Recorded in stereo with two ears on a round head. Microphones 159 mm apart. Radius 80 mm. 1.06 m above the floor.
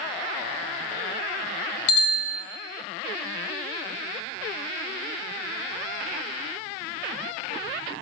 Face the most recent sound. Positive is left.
turn(degrees=90)